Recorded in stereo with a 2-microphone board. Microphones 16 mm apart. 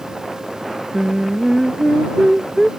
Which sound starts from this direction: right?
Singing, at 0.9 s.